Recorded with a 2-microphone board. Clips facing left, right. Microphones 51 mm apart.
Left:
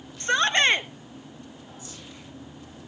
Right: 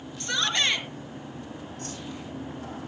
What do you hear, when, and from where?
0.2 s a shout: 35° left (ahead or behind), 1.4 m
1.8 s a whoosh: 65° right (ahead or behind), 7 m